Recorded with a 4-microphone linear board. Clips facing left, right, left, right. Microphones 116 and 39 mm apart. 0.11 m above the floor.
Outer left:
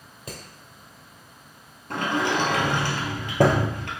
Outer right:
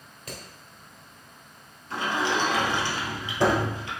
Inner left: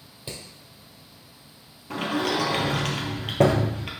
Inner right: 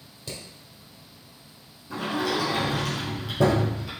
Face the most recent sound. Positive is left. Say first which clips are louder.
# outer left 2 dB, inner left 1 dB
turn(degrees=60)  # may be behind; listen again after turning